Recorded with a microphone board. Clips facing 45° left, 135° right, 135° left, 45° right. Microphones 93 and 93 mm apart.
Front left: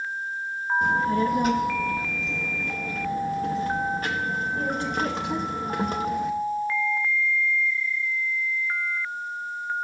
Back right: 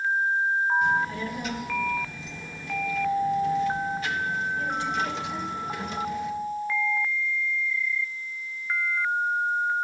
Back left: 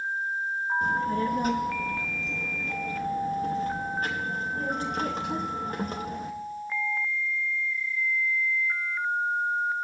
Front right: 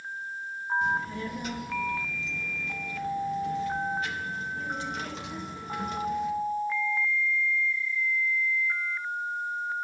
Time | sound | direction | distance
0.8 | a child speaking | 90° left | 0.6 m